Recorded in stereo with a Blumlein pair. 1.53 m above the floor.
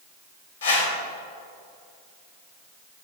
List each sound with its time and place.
0.6 s a whoosh: 60° left, 1.9 m